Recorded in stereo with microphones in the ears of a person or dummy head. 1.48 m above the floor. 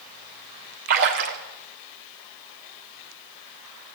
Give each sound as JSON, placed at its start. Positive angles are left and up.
{"t": 0.9, "sound": "a splash", "side_deg": -45, "distance_m": 1.4}